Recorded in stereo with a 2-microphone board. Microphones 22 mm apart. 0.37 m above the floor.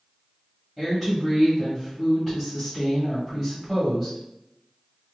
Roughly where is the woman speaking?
Centre.